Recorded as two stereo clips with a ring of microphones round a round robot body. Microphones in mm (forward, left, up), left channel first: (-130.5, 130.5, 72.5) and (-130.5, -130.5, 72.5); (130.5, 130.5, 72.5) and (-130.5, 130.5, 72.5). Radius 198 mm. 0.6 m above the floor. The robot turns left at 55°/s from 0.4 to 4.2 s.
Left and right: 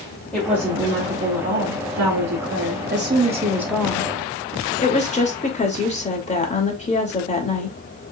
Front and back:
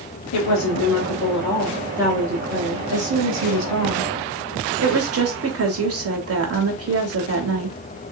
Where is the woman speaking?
5° left, 2.5 m; by 7.8 s 155° left, 2.5 m.